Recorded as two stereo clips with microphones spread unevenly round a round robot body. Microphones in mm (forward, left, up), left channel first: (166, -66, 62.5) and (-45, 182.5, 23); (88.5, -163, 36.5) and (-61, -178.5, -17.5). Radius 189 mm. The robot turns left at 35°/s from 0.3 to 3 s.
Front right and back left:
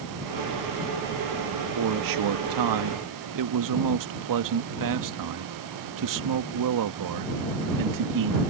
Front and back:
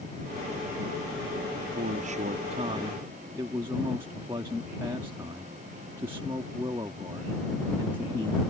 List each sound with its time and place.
1.8 s a man speaking: 155° left; by 8.4 s 110° left